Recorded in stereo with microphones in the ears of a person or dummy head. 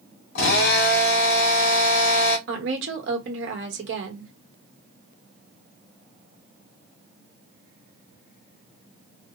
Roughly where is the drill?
Left.